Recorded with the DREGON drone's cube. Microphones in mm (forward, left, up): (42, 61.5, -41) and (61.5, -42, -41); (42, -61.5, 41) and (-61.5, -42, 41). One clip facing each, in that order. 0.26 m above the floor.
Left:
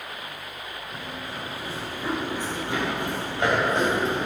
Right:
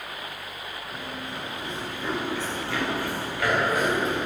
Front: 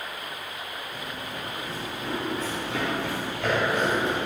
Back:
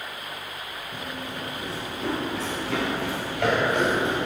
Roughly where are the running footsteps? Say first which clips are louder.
Even, back 4 dB; behind.